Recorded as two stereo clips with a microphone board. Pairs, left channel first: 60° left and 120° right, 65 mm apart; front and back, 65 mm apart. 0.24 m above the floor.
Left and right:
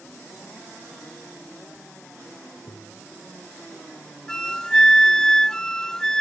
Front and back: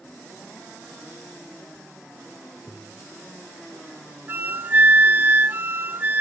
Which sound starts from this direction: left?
Tapping, at 2.7 s.